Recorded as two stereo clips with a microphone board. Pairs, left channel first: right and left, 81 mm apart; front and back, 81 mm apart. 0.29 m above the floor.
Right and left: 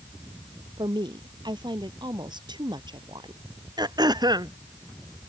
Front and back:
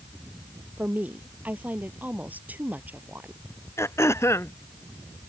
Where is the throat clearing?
55° left.